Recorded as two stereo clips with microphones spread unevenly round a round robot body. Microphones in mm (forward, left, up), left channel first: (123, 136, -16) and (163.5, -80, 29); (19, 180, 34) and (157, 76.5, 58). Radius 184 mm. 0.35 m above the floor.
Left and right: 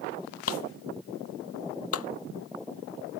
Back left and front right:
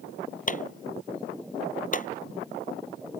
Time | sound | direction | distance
0.5 | a clap | 100° left | ?